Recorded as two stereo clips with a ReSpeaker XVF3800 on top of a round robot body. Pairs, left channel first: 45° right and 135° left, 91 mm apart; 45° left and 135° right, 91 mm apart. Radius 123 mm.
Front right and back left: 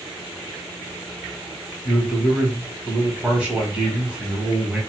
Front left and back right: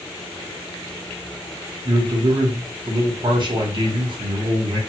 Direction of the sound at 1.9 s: 150° right.